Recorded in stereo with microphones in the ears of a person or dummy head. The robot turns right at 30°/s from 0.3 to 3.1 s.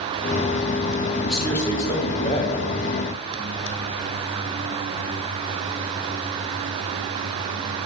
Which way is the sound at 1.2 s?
Straight ahead.